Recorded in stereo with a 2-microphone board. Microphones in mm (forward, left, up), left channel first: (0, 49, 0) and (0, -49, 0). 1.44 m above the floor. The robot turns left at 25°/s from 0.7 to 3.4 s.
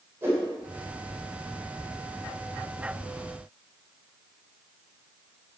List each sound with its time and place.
0.2 s a whoosh: 25° right (ahead or behind), 7 m